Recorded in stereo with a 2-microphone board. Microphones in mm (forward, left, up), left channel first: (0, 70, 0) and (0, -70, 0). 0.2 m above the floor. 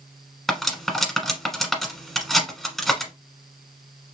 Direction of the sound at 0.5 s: Centre (ahead or behind).